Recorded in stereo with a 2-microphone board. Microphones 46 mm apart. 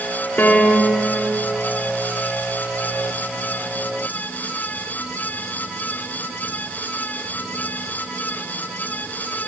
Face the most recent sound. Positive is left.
turn(degrees=45)  # may be behind; listen again after turning